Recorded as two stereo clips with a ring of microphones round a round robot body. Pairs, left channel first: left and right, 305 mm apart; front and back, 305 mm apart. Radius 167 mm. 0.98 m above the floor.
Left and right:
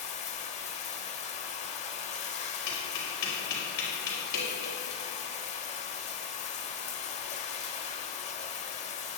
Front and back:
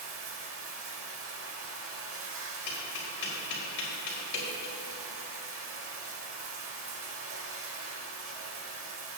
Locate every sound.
0.0 s running water: 150° left, 0.9 m
2.7 s tapping: 60° left, 3.5 m